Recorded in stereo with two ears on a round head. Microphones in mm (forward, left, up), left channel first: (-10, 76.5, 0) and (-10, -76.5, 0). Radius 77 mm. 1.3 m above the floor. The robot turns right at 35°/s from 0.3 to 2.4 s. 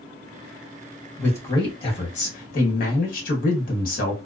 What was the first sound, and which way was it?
A man speaking, 10° left.